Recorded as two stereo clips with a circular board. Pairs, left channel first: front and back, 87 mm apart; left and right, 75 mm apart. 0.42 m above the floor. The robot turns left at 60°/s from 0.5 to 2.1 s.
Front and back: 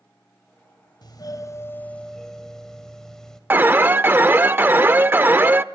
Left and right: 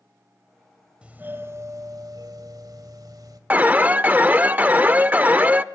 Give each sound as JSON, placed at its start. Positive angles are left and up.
{"t": 1.0, "sound": "a doorbell", "azimuth_deg": -15, "distance_m": 2.0}
{"t": 3.5, "sound": "an alarm", "azimuth_deg": -135, "distance_m": 0.5}